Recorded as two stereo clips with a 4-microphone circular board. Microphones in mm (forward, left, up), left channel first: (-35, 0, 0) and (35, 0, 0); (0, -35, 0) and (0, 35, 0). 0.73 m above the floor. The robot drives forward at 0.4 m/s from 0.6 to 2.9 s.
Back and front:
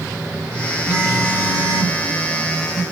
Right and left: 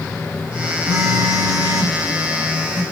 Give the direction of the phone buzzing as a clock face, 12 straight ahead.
10 o'clock.